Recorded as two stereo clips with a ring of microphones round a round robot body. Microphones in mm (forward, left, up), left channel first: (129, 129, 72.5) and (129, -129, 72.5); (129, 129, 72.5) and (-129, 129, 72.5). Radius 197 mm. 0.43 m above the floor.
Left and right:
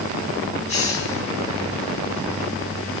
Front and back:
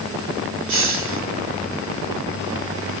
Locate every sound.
0.7 s a hiss: 155° left, 2.0 m